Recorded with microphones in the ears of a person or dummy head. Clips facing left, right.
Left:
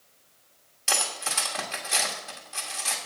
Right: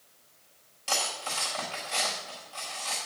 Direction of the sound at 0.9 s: 20° left (ahead or behind).